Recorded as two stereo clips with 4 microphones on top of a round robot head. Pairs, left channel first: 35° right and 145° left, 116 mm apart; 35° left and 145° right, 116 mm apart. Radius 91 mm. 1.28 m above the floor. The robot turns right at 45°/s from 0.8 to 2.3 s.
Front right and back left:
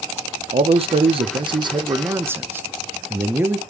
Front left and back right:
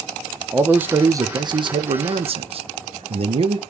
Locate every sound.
0.5 s a man speaking: 145° left, 0.7 m; by 3.6 s 145° right, 0.7 m